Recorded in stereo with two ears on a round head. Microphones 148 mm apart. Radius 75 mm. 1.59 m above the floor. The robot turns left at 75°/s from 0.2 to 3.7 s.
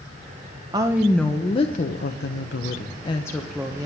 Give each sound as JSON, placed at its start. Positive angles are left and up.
{"t": 0.7, "sound": "a woman speaking", "azimuth_deg": -155, "distance_m": 1.0}